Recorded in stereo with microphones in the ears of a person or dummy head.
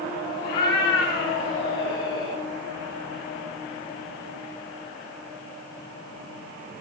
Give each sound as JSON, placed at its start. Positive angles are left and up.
{"t": 0.4, "sound": "a cat meowing", "side_deg": 60, "distance_m": 2.0}